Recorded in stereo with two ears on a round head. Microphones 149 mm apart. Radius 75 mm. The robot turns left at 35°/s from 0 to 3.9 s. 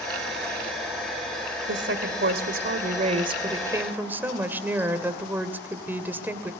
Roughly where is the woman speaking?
Right.